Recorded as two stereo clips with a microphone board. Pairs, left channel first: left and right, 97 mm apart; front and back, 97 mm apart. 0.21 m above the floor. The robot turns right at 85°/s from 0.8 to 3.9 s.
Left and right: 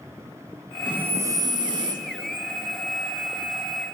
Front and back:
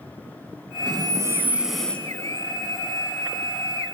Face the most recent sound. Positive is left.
turn(degrees=90)